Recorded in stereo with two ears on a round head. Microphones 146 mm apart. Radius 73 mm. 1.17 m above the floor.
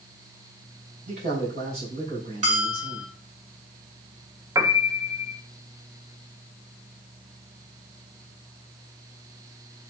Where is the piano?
20° right (ahead or behind), 0.7 m.